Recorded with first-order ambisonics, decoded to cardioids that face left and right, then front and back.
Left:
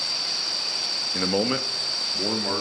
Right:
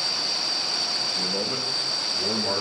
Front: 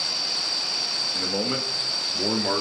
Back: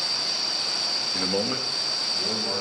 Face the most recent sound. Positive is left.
turn(degrees=30)